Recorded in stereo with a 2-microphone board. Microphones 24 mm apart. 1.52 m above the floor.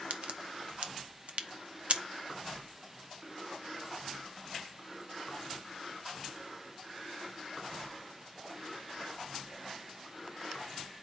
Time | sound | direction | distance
0.1 | a crack | 55° right (ahead or behind) | 0.7 m